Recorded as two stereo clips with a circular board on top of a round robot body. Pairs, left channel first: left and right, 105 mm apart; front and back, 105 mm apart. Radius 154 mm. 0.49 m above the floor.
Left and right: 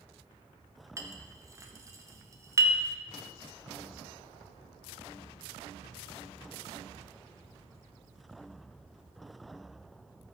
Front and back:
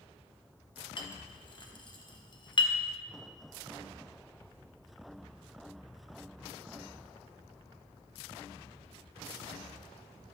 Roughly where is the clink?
Ahead right.